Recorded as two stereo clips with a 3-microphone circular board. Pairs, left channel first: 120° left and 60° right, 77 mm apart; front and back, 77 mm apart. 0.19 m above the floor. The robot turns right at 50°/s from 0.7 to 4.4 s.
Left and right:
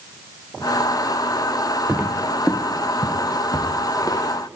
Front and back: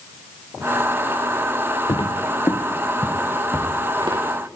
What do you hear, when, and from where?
1.9 s footsteps: straight ahead, 0.9 m; by 4.2 s 170° left, 1.6 m